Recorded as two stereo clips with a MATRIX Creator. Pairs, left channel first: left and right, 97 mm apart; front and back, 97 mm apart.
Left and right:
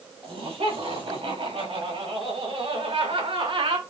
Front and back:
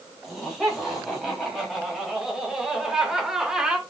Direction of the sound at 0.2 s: 95° right.